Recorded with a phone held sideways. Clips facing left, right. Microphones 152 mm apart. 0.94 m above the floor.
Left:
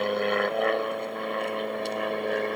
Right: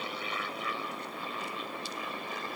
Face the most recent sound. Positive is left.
turn(degrees=65)  # may be behind; listen again after turning